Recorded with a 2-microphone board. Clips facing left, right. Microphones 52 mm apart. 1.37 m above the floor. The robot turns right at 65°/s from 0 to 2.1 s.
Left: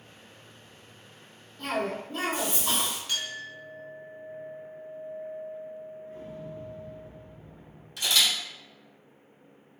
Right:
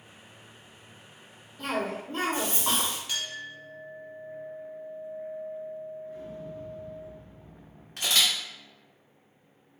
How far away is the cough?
About 1.8 m.